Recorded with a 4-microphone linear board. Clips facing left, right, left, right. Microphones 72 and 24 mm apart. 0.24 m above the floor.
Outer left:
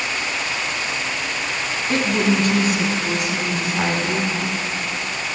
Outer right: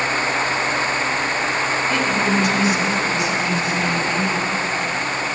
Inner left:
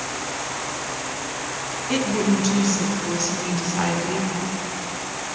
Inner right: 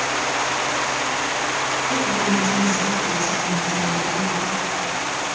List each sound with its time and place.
1.9 s a woman speaking: 45° left (ahead or behind), 2 m; by 4.3 s 65° left (ahead or behind), 3.5 m